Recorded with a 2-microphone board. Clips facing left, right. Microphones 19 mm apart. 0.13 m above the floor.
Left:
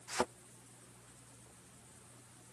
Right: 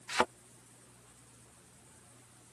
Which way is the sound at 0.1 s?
75° right (ahead or behind).